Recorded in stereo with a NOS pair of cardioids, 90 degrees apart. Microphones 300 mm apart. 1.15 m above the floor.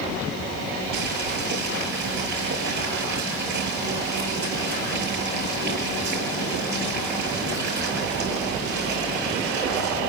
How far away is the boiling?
About 8.5 m.